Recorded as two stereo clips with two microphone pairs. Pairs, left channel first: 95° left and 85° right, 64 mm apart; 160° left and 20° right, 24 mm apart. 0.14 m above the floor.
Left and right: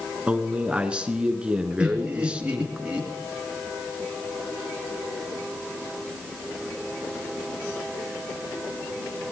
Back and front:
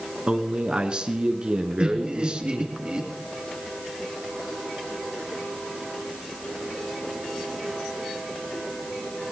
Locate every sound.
0.3 s a man speaking: 25° right, 1.3 m
1.8 s laughter: 20° right, 2.5 m